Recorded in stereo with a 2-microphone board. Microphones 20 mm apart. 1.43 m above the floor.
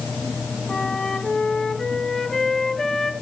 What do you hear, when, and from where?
0.7 s a flute: 40° left (ahead or behind), 1.9 m